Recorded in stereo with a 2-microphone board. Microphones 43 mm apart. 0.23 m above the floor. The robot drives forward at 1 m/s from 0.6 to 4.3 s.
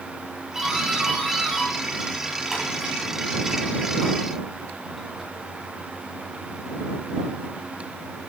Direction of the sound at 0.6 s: 10° right (ahead or behind).